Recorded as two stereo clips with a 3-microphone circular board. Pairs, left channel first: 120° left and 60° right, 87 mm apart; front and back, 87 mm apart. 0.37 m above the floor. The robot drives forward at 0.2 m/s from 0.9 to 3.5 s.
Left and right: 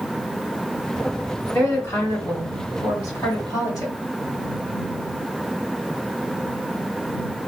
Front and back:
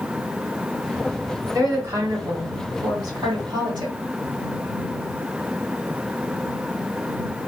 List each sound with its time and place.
1.5 s a woman speaking: 160° left, 1.3 m; by 3.9 s 170° left, 1.6 m